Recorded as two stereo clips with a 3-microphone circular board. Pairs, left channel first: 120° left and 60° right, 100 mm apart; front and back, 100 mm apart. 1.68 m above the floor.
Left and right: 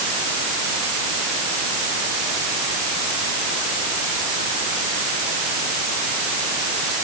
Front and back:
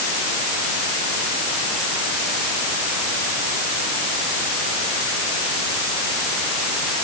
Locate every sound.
Only background noise.